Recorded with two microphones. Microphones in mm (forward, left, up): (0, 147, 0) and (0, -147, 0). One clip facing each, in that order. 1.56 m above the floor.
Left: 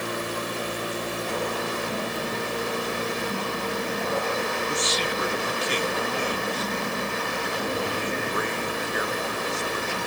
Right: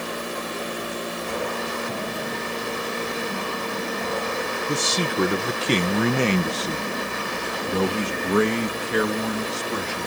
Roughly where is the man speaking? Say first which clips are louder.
Right 3 dB; right.